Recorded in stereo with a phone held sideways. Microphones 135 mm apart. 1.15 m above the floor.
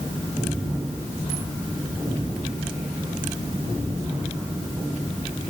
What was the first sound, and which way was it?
Only background noise.